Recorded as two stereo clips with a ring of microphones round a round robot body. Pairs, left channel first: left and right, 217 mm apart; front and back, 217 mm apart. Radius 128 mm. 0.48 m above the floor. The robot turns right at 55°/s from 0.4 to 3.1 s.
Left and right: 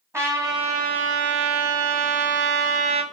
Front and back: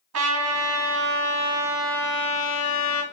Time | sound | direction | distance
0.1 | a trumpet | 170° right | 1.5 m